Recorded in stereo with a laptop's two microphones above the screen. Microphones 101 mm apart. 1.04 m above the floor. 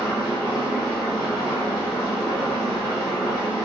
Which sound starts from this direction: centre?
An engine running, at 0.0 s.